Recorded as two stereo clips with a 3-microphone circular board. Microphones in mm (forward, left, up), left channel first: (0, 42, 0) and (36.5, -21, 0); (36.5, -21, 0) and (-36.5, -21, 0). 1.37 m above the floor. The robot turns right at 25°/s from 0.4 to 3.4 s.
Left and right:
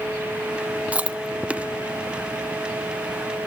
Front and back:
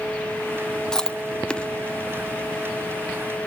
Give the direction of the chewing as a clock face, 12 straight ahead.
2 o'clock.